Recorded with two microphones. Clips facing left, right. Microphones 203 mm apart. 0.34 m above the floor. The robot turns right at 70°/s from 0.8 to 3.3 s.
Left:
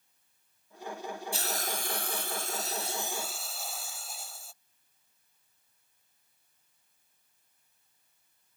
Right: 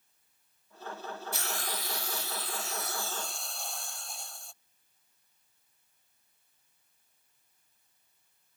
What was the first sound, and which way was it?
A hiss, 35° left.